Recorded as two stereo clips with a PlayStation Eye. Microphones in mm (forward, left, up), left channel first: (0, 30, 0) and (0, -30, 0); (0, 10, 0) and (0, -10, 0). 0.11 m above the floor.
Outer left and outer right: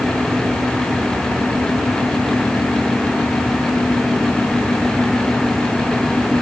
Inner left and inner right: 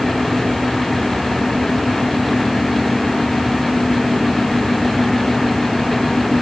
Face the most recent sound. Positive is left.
No sound to turn to.